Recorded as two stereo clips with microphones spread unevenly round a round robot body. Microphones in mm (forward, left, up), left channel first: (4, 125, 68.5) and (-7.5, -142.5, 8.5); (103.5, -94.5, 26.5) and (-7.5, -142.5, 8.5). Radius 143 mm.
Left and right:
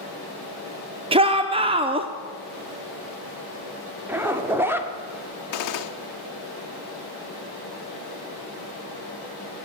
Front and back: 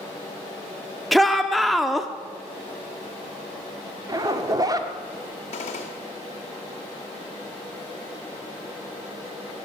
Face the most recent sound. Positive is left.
turn(degrees=70)